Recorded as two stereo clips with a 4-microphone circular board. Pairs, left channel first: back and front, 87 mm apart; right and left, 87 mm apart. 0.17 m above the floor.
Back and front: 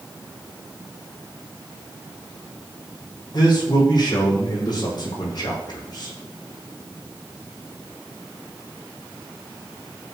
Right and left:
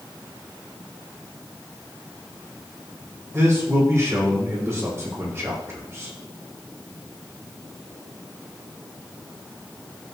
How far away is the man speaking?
About 6 m.